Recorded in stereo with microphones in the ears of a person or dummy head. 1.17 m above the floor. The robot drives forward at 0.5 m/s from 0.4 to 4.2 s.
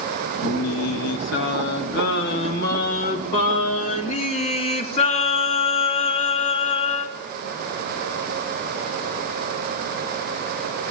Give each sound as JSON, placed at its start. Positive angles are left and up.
{"t": 0.4, "sound": "singing", "side_deg": 75, "distance_m": 1.9}